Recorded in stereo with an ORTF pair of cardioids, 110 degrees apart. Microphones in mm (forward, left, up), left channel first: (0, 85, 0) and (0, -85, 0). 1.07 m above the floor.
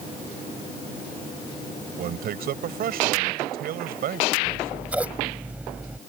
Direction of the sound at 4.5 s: 10° right.